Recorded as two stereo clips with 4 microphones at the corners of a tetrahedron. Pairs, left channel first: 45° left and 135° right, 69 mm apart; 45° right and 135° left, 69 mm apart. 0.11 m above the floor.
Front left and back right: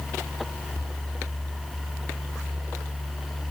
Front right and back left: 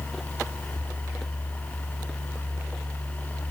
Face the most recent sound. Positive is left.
No sound to turn to.